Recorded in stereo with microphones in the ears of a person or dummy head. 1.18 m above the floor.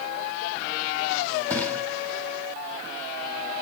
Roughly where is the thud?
Centre.